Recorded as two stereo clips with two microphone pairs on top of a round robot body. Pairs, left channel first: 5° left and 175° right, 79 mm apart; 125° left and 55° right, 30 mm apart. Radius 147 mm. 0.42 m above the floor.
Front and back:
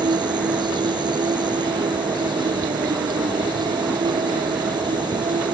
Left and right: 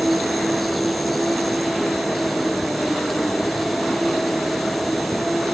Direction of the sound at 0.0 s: 150° right.